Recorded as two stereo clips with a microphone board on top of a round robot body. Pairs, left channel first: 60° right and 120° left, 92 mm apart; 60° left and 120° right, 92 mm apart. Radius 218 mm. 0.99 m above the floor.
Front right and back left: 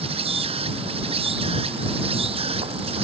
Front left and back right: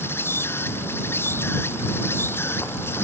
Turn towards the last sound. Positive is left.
turn(degrees=125)